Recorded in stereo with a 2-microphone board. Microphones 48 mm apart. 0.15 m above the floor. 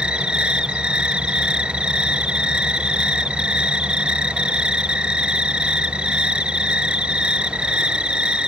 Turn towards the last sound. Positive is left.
turn(degrees=-25)  # may be behind; listen again after turning